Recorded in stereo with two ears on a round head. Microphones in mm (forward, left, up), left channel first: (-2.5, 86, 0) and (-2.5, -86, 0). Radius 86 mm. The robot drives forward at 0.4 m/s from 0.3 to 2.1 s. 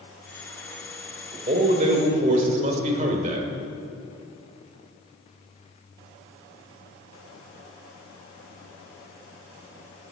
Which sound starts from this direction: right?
A man speaking, at 1.5 s.